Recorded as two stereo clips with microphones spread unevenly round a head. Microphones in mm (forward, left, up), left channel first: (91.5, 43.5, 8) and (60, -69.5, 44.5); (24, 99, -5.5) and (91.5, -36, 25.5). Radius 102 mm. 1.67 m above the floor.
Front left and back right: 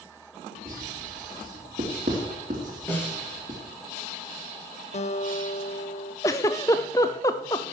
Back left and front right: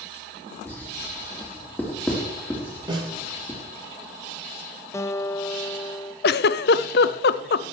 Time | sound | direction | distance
0.7 | writing | 160° right | 3.5 m
2.9 | a snare drum | 5° right | 9 m
4.9 | a guitar | 45° left | 1.3 m
6.2 | a giggle | 145° left | 0.5 m